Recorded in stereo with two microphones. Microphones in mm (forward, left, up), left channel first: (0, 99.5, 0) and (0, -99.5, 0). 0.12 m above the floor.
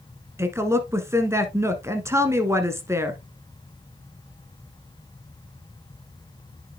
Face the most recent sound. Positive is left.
turn(degrees=-15)  # may be behind; listen again after turning